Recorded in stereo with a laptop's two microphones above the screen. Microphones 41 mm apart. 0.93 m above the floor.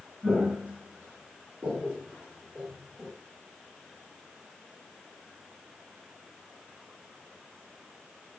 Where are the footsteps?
50° right (ahead or behind), 1.5 m; by 3.1 s 30° right (ahead or behind), 1.6 m.